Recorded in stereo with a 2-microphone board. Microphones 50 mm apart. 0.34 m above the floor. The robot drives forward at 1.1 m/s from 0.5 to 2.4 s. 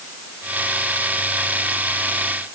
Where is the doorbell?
No doorbell in this recording.